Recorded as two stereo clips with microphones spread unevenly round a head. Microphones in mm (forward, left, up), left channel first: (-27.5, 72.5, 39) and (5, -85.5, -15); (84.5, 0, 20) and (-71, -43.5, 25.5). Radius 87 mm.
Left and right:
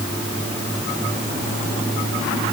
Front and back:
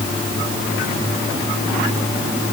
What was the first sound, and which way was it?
Only background noise.